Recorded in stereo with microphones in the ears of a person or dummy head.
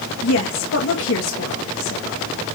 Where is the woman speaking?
70° left (ahead or behind), 1.7 m.